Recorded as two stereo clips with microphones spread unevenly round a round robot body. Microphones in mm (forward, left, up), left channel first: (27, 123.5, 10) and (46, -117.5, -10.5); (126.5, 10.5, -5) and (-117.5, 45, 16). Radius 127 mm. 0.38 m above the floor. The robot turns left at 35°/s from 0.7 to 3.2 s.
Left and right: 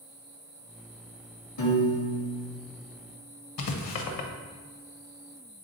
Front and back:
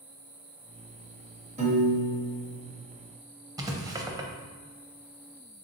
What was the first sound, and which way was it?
A piano, 110° left.